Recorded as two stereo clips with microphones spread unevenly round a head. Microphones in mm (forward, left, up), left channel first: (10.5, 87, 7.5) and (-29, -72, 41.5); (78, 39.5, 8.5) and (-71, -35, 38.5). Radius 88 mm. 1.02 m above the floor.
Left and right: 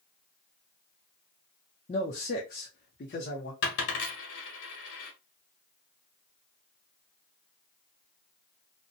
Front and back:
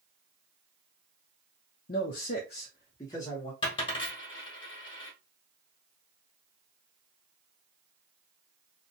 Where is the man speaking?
30° left, 0.6 m; by 3.5 s 105° left, 1.1 m.